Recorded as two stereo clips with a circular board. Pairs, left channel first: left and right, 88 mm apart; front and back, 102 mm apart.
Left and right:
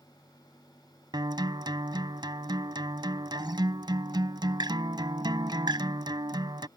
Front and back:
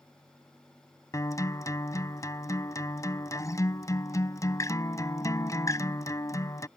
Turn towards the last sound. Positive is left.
turn(degrees=-55)